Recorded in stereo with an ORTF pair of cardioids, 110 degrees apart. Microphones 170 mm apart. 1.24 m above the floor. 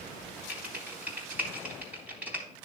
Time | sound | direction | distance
0.5 | typing on a keyboard | 10° right | 3.5 m